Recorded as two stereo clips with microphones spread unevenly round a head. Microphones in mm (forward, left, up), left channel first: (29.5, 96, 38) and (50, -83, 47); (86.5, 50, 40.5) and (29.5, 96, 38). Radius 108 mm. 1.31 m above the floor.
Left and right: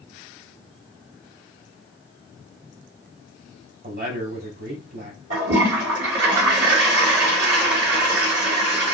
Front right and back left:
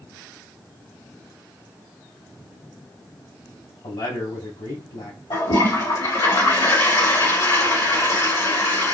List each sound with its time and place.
3.8 s a man speaking: 50° right, 1.6 m
5.3 s a toilet flushing: 60° right, 2.5 m